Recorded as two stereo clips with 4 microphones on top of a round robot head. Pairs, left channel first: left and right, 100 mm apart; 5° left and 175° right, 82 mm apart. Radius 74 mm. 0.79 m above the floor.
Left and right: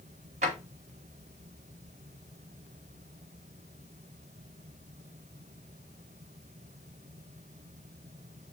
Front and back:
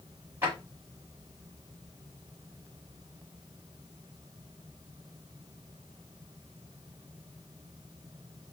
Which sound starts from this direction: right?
A drawer, at 0.4 s.